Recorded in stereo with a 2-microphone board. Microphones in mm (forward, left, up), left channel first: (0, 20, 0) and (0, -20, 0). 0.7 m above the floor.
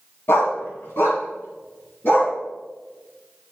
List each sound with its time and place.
0.3 s a dog barking: 85° left, 2 m; by 2.4 s 65° left (ahead or behind), 4 m